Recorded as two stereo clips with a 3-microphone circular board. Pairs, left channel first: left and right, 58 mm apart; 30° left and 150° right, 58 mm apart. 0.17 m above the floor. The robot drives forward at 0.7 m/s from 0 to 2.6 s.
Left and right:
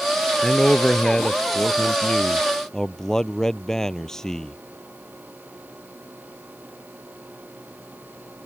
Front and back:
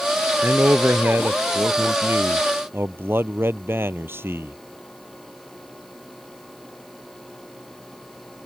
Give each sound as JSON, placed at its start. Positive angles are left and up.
{"t": 0.4, "sound": "a man speaking", "azimuth_deg": 170}